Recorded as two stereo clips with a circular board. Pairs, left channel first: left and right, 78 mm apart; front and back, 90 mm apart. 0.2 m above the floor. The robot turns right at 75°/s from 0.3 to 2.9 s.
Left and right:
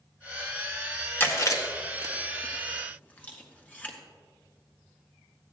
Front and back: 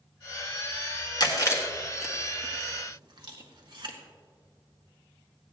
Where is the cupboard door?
No cupboard door in this recording.